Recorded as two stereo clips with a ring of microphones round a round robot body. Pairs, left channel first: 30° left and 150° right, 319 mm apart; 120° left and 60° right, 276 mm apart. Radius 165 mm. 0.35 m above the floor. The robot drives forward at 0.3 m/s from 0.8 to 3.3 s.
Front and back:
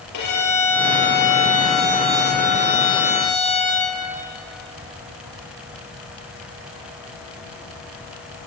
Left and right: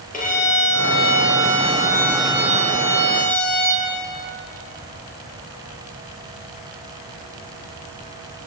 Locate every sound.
0.1 s a violin: 60° left, 7.5 m; by 3.9 s 65° left, 7 m